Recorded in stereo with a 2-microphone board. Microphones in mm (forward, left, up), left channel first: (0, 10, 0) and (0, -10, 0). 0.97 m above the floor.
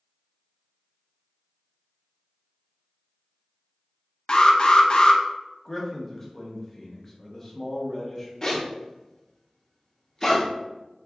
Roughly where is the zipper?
Left.